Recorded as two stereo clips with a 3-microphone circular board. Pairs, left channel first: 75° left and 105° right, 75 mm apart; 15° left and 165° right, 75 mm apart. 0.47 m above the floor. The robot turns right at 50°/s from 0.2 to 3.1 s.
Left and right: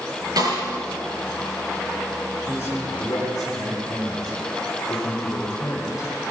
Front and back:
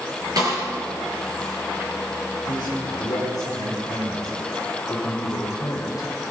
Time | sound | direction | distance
0.4 | a snare drum | 135° right | 7.5 m
2.5 | a man speaking | 5° left | 7 m